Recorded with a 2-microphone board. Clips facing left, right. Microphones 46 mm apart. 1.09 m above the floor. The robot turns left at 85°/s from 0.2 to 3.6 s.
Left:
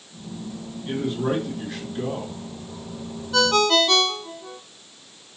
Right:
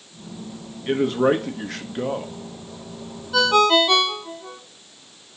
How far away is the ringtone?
About 0.6 m.